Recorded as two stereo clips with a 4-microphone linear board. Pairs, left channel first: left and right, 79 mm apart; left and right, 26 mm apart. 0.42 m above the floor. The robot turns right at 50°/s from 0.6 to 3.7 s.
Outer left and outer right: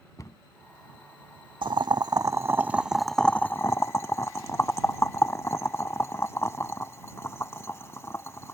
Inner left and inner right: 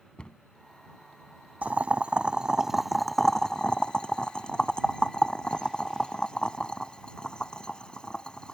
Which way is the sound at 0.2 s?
45° left (ahead or behind).